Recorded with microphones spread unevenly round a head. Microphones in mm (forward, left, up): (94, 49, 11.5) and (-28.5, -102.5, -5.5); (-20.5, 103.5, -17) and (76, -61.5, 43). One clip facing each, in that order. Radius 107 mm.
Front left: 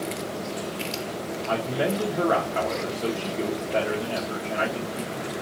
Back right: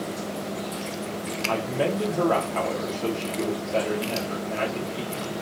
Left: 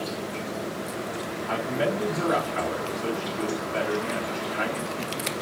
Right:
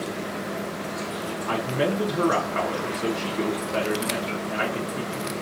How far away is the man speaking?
About 1.0 m.